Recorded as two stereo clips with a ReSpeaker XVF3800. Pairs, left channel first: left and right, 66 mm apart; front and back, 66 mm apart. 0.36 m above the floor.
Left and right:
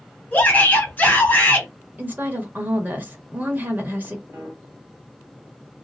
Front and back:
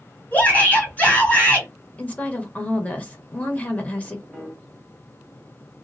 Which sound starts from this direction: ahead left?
A shout, at 0.3 s.